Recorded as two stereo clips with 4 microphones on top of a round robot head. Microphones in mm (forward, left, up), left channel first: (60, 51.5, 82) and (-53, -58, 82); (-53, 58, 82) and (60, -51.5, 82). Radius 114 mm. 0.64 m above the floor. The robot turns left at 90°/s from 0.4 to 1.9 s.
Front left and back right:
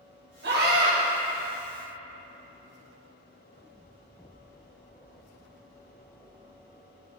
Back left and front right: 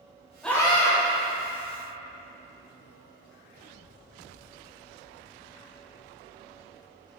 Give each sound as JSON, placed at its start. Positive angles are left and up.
{"t": 0.4, "sound": "a scream", "azimuth_deg": -135, "distance_m": 3.0}